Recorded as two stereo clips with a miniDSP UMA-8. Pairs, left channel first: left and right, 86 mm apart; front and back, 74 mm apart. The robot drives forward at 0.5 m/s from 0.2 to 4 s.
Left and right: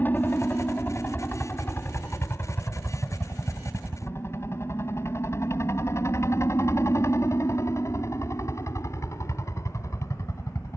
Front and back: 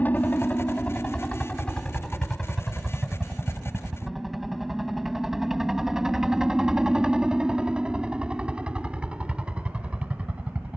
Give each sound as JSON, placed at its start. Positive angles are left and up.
{"t": 0.0, "sound": "a helicopter", "azimuth_deg": 45}